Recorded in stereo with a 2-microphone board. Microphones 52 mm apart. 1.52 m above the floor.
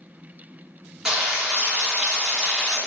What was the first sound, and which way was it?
Frying, 10° right (ahead or behind).